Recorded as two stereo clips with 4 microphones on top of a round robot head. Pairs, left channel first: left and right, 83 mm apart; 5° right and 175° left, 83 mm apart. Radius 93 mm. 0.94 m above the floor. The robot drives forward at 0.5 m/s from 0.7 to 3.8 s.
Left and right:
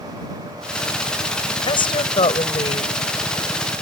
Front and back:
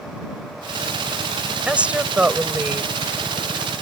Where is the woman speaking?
100° left; by 2.9 s 105° left.